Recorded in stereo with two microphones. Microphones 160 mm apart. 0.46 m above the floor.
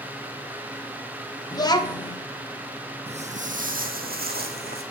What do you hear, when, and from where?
1.5 s a child speaking: 25° left (ahead or behind), 0.7 m
3.1 s footsteps: 40° right (ahead or behind), 0.8 m; by 4.8 s 75° right (ahead or behind), 1.5 m